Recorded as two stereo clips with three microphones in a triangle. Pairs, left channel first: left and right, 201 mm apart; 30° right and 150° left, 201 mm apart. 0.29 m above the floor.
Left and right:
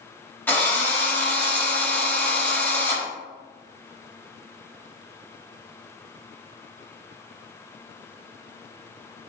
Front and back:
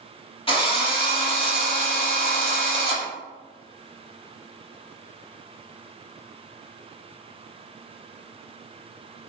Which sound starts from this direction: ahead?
A drill, at 0.5 s.